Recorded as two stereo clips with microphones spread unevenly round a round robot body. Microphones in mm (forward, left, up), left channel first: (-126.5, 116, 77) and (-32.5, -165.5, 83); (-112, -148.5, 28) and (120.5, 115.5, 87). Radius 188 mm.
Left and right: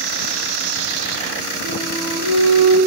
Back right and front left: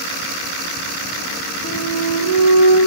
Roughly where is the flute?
Ahead right.